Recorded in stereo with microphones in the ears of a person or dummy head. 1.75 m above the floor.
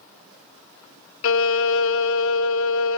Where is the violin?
85° left, 0.6 m.